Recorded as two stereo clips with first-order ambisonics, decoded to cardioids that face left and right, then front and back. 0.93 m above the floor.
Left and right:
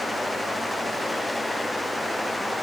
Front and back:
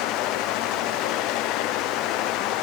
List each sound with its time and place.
Only background noise.